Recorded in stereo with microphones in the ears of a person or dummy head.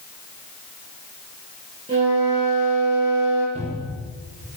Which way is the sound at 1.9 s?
30° right (ahead or behind).